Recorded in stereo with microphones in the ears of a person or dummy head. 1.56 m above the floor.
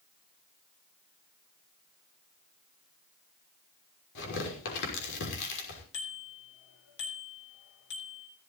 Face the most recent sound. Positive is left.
turn(degrees=65)  # may be behind; listen again after turning